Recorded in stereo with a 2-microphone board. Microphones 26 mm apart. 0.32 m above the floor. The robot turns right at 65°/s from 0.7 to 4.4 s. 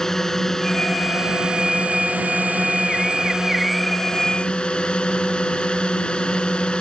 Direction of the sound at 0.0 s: 160° left.